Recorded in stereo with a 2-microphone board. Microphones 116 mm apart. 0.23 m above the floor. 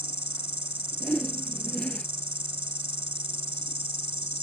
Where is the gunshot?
I don't hear a gunshot.